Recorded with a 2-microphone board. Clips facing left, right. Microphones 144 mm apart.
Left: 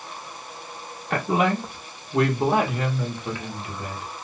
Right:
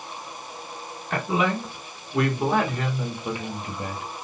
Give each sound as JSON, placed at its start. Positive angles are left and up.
{"t": 1.1, "sound": "a woman speaking", "side_deg": 50, "distance_m": 1.8}